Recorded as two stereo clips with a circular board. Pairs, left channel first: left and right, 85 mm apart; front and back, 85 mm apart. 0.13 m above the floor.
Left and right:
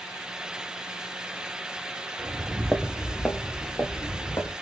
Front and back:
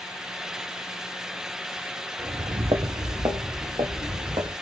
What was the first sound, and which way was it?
Footsteps, 150° right.